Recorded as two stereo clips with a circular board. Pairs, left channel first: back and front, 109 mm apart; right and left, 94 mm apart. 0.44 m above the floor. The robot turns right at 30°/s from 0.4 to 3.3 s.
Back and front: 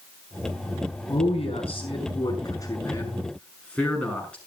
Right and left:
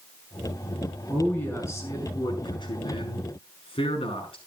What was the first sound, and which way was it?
A man speaking, 170° right.